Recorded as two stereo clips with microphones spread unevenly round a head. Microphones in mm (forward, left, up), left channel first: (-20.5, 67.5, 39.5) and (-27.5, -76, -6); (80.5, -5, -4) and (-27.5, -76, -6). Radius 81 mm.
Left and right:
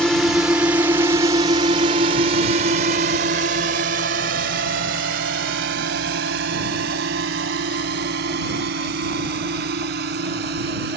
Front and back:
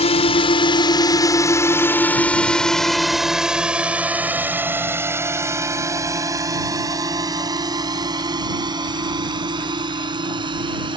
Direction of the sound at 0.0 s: 5° right.